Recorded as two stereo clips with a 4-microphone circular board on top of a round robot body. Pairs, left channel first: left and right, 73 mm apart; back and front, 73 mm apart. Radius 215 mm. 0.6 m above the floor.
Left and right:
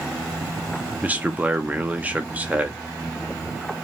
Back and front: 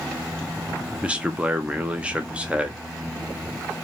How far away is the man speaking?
About 0.8 m.